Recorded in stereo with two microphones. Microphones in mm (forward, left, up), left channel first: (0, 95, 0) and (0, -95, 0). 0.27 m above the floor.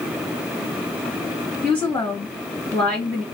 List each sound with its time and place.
1.6 s a woman speaking: 5° left (ahead or behind), 1.9 m